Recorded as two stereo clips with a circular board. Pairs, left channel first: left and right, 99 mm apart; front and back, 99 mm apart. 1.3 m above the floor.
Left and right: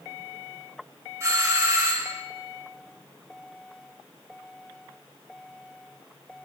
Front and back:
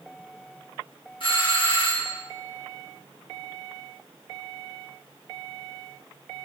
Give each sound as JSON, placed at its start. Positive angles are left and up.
{"t": 1.2, "sound": "a doorbell", "azimuth_deg": -30, "distance_m": 2.0}